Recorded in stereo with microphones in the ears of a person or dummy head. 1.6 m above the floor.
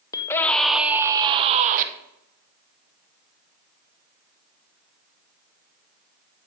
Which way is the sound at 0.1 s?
20° left (ahead or behind).